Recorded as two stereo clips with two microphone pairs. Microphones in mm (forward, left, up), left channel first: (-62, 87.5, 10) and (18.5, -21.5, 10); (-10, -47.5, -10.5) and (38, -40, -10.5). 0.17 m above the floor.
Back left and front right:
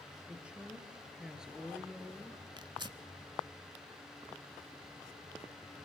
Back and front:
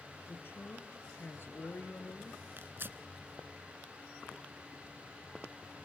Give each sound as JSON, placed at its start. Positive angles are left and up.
{"t": 0.3, "sound": "a woman speaking", "azimuth_deg": -135, "distance_m": 3.5}
{"t": 2.6, "sound": "tearing paper", "azimuth_deg": -10, "distance_m": 0.8}